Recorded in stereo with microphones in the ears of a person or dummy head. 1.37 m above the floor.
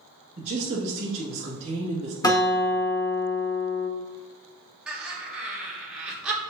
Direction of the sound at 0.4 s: 40° right (ahead or behind).